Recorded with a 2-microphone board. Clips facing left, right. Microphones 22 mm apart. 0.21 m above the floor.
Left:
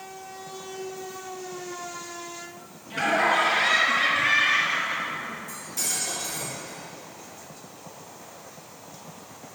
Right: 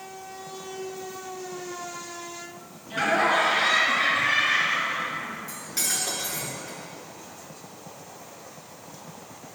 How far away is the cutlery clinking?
About 1.6 m.